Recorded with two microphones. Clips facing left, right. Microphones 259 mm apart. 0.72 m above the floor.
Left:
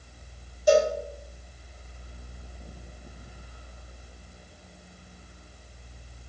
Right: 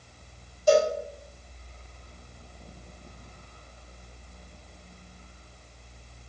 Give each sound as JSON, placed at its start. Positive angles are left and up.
{"t": 0.7, "sound": "a cowbell", "side_deg": 20, "distance_m": 1.4}